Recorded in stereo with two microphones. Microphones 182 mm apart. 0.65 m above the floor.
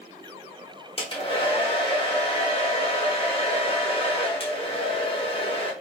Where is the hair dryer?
30° left (ahead or behind), 0.8 m.